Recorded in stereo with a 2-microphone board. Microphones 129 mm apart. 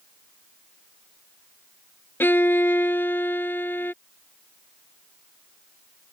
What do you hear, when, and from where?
2.2 s a violin: 15° left (ahead or behind)